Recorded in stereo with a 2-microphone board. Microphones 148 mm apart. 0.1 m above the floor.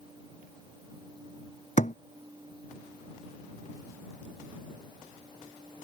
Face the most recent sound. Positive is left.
turn(degrees=55)  # may be behind; listen again after turning